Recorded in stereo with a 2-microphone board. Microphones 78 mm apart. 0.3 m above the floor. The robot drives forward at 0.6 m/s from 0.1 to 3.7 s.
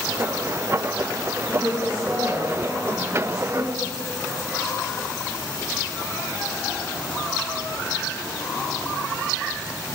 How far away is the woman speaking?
About 5 m.